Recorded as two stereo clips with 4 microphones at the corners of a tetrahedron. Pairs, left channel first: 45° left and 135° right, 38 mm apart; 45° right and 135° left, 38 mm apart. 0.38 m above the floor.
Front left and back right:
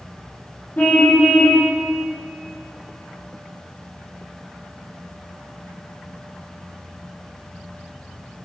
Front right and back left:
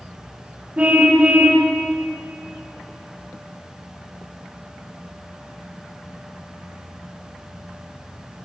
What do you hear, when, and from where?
0.8 s a car horn: 85° left, 6.5 m